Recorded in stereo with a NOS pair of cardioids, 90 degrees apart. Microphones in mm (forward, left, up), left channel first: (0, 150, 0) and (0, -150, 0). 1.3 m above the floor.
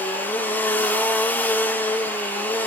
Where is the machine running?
5° left, 2 m.